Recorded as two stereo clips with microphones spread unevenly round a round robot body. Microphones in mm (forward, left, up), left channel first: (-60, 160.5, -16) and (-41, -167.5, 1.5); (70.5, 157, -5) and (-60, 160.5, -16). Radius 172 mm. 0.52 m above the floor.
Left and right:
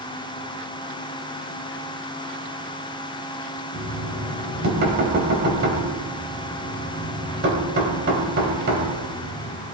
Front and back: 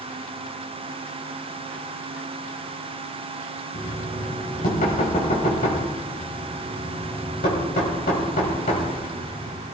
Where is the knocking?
25° right, 2.5 m.